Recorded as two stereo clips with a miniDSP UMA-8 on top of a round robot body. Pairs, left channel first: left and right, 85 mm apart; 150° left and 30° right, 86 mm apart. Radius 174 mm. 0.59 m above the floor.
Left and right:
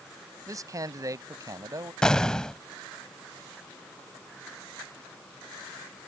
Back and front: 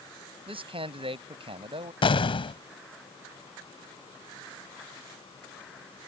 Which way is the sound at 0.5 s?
40° right.